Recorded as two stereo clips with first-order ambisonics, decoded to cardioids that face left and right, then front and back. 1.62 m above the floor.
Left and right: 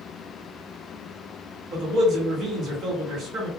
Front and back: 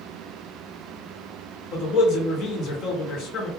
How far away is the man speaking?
About 1.0 m.